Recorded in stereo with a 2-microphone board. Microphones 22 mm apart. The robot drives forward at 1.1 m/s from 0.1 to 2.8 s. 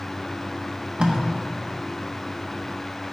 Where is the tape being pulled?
50° right (ahead or behind), 1.1 m; by 1.2 s 45° right (ahead or behind), 1.3 m.